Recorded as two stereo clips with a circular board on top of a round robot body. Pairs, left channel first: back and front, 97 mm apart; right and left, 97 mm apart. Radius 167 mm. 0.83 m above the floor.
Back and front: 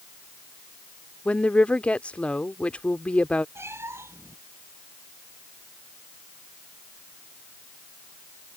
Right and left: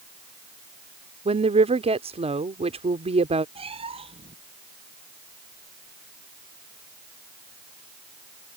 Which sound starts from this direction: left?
A woman speaking, at 1.2 s.